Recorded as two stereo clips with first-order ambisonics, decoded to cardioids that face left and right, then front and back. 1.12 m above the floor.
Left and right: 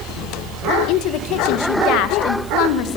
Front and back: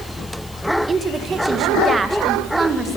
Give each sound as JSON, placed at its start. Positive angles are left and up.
{"t": 0.9, "sound": "a woman speaking", "azimuth_deg": 110, "distance_m": 1.1}